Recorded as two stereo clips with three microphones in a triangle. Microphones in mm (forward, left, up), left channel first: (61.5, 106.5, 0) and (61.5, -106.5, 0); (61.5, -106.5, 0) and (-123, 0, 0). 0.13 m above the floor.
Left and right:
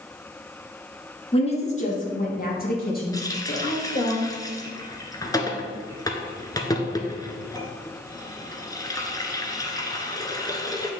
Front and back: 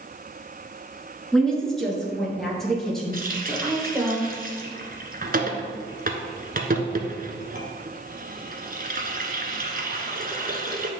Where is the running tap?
155° left, 1.0 m.